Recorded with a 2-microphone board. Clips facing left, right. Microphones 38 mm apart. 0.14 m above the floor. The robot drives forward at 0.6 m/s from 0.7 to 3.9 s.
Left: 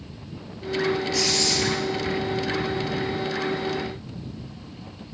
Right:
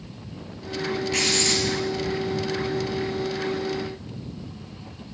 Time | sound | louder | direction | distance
1.1 | writing | right 1 dB | 60° right (ahead or behind) | 3.5 m